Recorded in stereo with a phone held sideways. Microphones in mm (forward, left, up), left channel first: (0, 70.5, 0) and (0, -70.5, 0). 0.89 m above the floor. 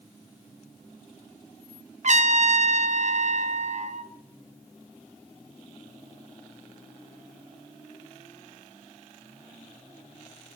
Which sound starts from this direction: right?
A trumpet, at 2.0 s.